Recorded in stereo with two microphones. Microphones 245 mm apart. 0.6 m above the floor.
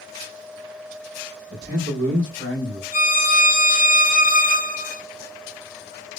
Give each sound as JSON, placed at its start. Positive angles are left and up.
{"t": 1.5, "sound": "a man speaking", "side_deg": -60, "distance_m": 1.5}
{"t": 2.9, "sound": "a violin", "side_deg": 40, "distance_m": 1.3}